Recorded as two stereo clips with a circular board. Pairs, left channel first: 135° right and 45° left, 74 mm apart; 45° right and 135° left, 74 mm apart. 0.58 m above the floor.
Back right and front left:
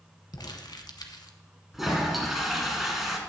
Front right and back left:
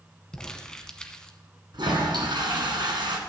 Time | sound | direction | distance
0.3 | crumpling | 125° right | 1.0 m
1.7 | a toilet flushing | 135° left | 1.8 m